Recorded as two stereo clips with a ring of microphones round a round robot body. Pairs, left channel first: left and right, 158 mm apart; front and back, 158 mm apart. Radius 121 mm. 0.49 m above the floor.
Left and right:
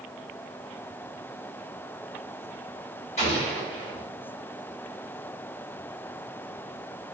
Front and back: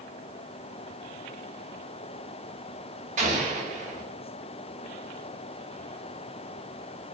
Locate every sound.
3.2 s an explosion: 145° left, 1.6 m